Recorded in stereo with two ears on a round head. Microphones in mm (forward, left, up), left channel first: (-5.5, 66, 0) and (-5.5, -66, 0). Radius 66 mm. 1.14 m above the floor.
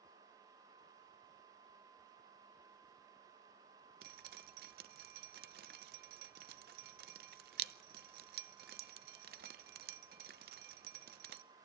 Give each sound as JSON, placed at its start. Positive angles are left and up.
{"t": 4.0, "sound": "dripping", "side_deg": -70, "distance_m": 0.6}